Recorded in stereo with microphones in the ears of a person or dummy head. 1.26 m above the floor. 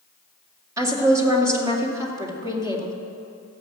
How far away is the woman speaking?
About 2 m.